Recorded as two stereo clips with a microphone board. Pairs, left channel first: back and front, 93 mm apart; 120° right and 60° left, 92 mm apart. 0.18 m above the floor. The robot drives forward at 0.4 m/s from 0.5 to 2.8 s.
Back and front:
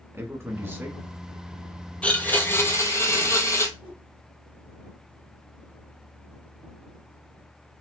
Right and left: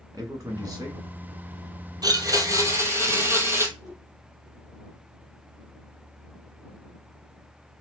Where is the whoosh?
165° right, 2.5 m.